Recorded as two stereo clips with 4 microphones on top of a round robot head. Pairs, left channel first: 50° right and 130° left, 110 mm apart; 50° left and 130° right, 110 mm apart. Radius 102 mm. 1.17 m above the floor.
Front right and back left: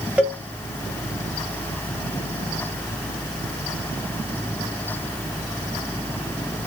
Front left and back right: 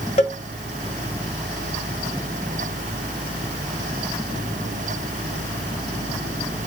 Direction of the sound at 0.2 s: 55° left.